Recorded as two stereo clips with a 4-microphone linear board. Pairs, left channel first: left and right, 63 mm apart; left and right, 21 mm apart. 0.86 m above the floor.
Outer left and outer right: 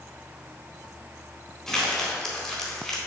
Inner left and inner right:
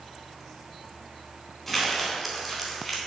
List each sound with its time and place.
1.7 s crumpling: 10° left (ahead or behind), 3.5 m